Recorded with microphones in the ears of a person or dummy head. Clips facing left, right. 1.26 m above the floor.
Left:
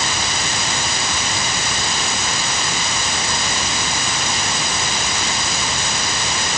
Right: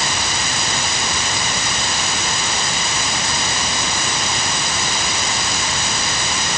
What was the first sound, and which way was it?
Only background noise.